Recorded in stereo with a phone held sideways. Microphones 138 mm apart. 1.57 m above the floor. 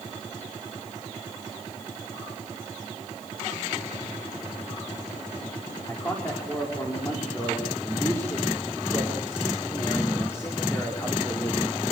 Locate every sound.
5.9 s a man speaking: 20° left (ahead or behind), 5 m